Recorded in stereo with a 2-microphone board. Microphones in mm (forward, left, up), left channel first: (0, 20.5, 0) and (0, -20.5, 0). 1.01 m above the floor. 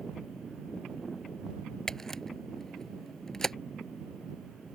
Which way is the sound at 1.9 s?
10° left (ahead or behind).